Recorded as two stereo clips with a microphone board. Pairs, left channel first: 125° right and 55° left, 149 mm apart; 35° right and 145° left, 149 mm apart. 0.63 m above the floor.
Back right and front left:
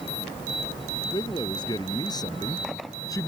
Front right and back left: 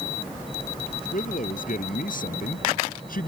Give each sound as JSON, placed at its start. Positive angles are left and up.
{"t": 1.1, "sound": "a man speaking", "azimuth_deg": -65}